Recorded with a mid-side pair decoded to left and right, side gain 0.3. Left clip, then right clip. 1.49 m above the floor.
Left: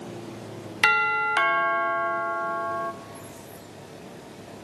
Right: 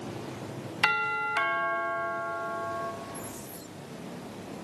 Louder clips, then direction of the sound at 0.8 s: Left 6 dB; 65° left.